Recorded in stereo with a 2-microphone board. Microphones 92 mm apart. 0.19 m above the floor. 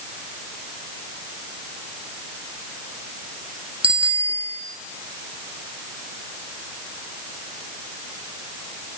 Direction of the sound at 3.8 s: 65° right (ahead or behind).